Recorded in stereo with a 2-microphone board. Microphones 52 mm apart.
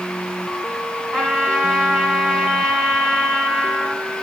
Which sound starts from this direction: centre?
A trumpet, at 1.1 s.